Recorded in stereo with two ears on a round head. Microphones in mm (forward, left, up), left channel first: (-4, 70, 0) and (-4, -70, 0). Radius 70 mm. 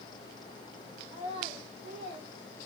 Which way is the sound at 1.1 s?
20° right (ahead or behind).